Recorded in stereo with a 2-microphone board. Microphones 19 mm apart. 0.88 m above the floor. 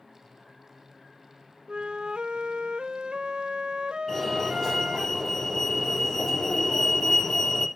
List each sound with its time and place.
1.7 s a flute: 65° right (ahead or behind), 0.7 m
4.1 s a fire alarm: 20° left (ahead or behind), 3 m